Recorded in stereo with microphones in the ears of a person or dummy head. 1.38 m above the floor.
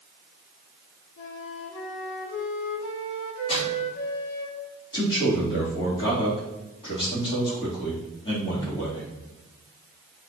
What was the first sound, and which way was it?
A flute, 65° left (ahead or behind).